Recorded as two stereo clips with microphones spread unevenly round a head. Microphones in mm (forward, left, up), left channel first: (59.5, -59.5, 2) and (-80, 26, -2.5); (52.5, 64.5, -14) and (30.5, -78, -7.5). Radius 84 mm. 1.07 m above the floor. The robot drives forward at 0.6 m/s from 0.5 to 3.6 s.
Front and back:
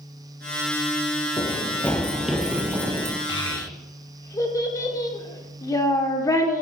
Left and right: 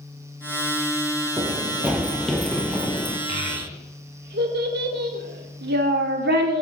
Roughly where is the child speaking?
Right.